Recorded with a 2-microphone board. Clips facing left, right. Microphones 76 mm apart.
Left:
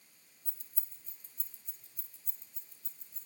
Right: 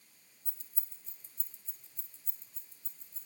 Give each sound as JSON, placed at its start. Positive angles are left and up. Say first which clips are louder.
{"t": 0.5, "sound": "keys jangling", "louder": "right 1 dB", "side_deg": -25, "distance_m": 4.0}